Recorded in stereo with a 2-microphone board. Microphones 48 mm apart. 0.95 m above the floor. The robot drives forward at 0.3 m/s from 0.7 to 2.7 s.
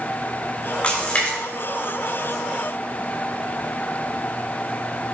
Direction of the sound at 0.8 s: 25° left (ahead or behind).